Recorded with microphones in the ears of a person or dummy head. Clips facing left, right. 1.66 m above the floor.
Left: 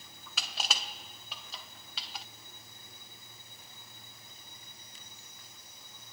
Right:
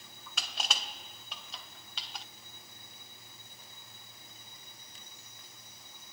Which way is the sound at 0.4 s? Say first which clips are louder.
Even; centre (ahead or behind).